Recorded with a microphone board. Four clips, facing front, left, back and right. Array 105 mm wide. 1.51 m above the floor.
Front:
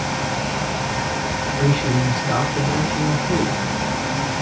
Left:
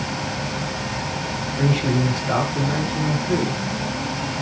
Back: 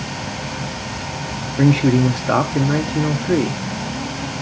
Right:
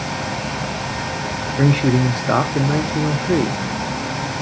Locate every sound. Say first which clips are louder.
1.6 s a man speaking: right 5 dB, back 7 dB; 140° right, 0.5 m